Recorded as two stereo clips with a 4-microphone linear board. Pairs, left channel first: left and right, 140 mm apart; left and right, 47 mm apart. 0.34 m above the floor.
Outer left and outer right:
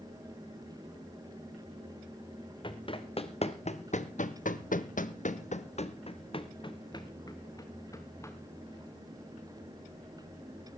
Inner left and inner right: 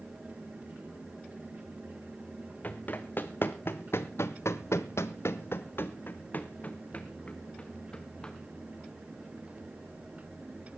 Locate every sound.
2.6 s running footsteps: 35° left (ahead or behind), 1.5 m; by 8.3 s 20° left (ahead or behind), 2 m